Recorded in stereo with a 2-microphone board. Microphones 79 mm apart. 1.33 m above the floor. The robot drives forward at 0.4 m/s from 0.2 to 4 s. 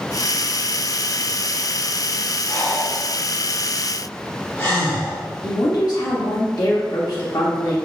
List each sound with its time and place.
2.5 s breathing: 30° left (ahead or behind), 1.4 m; by 5.2 s 25° left (ahead or behind), 1.8 m
5.4 s a woman speaking: 50° left (ahead or behind), 0.7 m